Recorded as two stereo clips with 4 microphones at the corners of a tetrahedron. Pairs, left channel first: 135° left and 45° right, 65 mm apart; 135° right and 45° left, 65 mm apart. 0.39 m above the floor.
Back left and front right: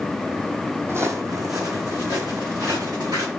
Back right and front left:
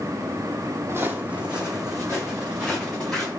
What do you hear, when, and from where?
0.9 s footsteps: straight ahead, 0.8 m; by 3.3 s 50° right, 3.5 m